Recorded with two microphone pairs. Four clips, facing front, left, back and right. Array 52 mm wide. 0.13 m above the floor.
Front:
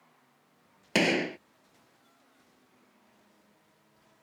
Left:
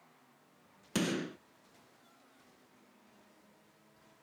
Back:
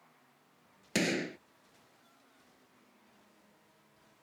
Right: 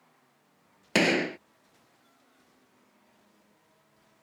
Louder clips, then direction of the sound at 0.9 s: Right 10 dB, front 6 dB; 55° right.